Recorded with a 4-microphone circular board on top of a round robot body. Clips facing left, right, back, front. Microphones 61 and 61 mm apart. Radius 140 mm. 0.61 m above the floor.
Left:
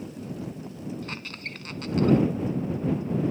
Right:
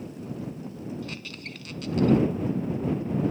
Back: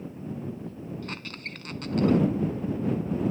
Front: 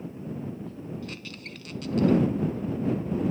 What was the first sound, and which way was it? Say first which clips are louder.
A squeak: left 2 dB, back 2 dB; 140° left.